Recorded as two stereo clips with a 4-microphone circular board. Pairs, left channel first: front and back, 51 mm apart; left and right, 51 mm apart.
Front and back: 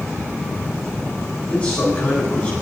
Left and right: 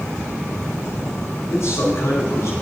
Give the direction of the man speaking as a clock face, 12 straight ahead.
10 o'clock.